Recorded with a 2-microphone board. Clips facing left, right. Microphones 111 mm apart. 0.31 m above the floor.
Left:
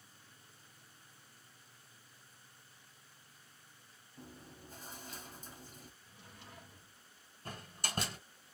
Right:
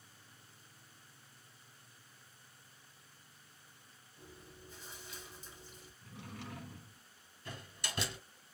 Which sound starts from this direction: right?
A drawer, at 6.0 s.